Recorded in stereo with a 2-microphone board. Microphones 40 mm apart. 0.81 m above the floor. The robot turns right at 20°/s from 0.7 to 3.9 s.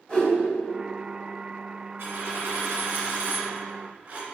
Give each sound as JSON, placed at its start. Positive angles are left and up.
{"t": 0.1, "sound": "a whoosh", "side_deg": 25, "distance_m": 1.3}
{"t": 2.0, "sound": "a dropped coin", "azimuth_deg": -90, "distance_m": 0.9}